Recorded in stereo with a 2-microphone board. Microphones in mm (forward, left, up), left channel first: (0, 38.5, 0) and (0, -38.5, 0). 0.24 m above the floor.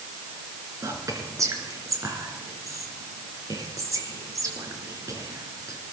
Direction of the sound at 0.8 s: 45° right (ahead or behind).